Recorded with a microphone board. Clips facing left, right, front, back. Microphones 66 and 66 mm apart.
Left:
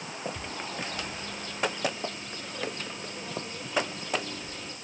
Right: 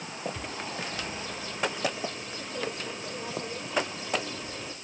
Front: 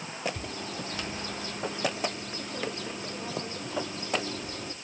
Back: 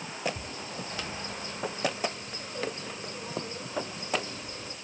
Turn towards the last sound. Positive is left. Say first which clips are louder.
# even, front 2 dB
turn(degrees=-5)